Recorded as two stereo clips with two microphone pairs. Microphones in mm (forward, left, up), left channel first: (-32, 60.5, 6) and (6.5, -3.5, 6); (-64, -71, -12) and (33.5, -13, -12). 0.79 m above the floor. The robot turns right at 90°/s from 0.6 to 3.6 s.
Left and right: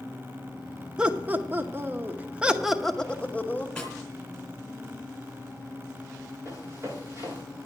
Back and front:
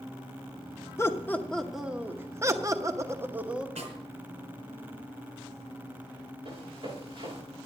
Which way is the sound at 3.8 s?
40° left.